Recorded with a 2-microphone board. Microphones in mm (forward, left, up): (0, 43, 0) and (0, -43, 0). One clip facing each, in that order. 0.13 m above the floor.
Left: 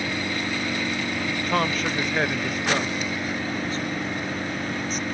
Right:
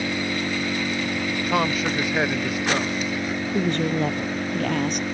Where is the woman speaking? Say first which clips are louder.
Right 6 dB; 65° right (ahead or behind).